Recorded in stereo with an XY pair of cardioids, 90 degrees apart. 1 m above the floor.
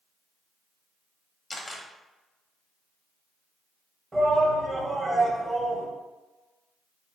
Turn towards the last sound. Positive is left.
turn(degrees=-30)